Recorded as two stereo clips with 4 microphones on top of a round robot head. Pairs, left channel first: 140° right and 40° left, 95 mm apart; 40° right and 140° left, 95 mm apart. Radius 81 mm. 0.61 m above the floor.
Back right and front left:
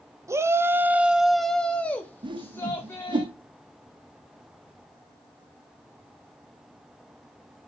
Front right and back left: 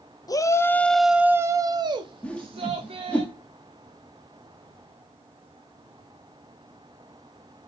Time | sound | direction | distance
0.3 | a shout | 10° right | 0.8 m
2.2 | a whoosh | 35° left | 1.1 m